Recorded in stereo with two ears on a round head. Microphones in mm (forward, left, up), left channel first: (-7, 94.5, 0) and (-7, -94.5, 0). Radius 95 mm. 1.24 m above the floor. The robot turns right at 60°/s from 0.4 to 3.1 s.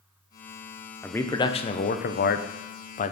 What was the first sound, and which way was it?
A man speaking, 5° left.